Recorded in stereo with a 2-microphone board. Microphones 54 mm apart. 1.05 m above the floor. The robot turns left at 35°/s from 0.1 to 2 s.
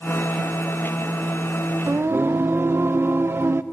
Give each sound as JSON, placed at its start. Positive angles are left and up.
{"t": 1.9, "sound": "singing", "side_deg": -45, "distance_m": 1.0}